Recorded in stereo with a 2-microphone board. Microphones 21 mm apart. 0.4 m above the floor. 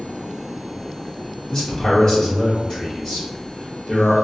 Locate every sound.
1.5 s a man speaking: 40° left (ahead or behind), 1.2 m